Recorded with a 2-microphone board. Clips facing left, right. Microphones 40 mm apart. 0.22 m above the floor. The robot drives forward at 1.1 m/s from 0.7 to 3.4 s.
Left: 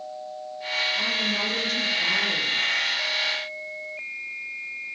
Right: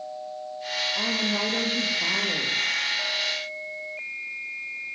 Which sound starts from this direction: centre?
A woman speaking, at 0.9 s.